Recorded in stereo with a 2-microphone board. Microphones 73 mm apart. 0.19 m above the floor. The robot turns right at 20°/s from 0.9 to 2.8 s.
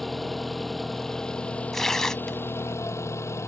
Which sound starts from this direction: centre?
Tearing paper, at 1.7 s.